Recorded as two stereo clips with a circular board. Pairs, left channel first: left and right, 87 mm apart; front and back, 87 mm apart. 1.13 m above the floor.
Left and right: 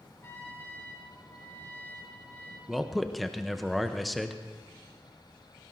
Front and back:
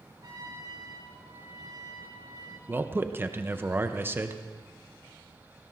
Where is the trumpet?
150° left, 4.5 m.